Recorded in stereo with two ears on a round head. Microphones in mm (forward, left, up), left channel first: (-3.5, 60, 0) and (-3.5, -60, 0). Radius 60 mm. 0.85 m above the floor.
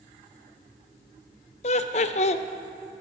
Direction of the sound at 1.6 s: 55° left (ahead or behind).